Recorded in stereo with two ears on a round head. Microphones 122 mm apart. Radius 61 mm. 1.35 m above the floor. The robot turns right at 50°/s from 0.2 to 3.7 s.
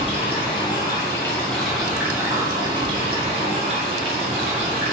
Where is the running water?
105° left, 0.8 m; by 4.9 s 80° right, 0.8 m.